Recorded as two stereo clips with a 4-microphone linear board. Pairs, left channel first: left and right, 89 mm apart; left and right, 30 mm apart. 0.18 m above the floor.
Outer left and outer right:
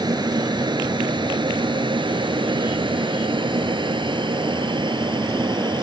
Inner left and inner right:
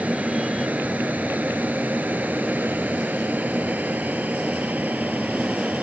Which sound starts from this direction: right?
An aircraft, at 0.0 s.